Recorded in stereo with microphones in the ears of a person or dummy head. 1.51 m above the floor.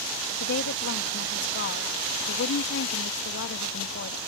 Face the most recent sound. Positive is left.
turn(degrees=65)  # may be behind; listen again after turning